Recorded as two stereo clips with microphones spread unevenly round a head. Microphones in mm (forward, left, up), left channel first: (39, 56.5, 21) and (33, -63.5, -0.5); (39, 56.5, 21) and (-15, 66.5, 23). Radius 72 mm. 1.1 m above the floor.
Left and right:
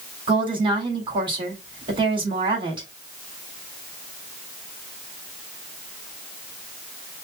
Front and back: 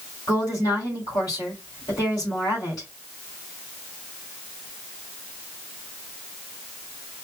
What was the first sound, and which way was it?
A woman speaking, 45° right.